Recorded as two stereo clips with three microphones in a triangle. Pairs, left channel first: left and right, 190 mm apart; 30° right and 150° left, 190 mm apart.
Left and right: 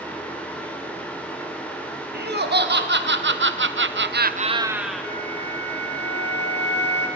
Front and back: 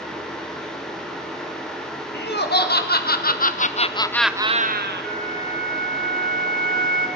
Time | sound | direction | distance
2.1 | laughter | 60° right | 1.9 m
5.0 | a flute | 110° left | 1.7 m